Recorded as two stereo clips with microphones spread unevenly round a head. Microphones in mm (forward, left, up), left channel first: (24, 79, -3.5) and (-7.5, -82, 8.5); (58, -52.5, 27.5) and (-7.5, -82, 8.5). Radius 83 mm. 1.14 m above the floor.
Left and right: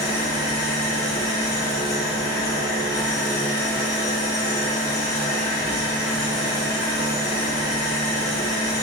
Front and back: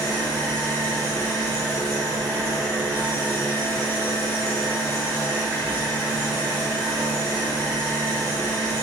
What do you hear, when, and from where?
0.0 s an engine running: 125° left, 3.5 m